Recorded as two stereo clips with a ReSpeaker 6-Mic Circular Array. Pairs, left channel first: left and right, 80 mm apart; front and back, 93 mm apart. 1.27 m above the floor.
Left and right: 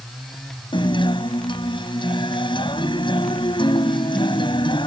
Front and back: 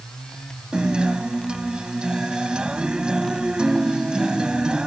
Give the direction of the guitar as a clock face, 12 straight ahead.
9 o'clock.